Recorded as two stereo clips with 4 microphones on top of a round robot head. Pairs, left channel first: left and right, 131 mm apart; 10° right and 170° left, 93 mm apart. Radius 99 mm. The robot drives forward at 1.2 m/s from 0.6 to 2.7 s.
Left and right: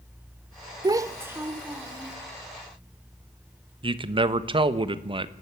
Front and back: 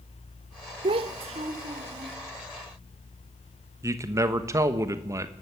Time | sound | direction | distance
0.8 | a child speaking | 150° right | 0.8 m
3.8 | a man speaking | 130° right | 1.2 m